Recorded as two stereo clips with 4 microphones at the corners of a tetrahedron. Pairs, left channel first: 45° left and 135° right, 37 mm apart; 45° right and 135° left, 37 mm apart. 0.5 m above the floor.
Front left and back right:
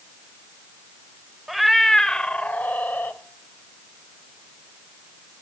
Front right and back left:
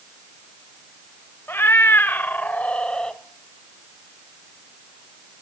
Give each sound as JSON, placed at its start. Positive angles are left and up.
{"t": 1.5, "sound": "a cat meowing", "azimuth_deg": -50, "distance_m": 0.7}